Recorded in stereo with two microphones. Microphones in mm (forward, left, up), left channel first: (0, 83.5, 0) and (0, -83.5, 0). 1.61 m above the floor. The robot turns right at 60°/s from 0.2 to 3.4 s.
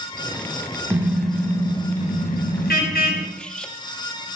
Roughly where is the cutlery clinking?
Centre.